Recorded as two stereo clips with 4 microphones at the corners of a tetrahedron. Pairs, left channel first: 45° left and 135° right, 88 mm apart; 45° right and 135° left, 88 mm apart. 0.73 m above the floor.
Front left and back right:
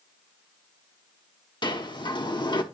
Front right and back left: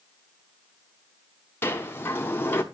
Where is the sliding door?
20° left, 0.9 m.